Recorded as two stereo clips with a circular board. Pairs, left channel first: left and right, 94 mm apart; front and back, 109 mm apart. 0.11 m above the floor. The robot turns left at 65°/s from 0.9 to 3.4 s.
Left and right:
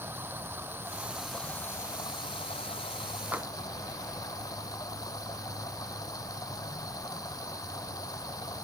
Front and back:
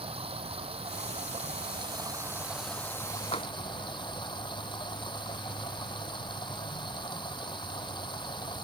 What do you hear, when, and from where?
0.0 s running water: 155° right; by 8.6 s 40° left
3.3 s tapping: 15° right; by 3.5 s 20° right